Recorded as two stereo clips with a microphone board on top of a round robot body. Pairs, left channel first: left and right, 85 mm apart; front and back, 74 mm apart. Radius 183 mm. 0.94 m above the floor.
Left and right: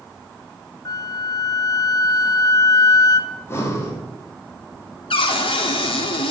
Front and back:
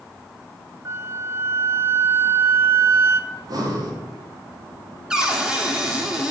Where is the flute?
130° left, 1.1 m.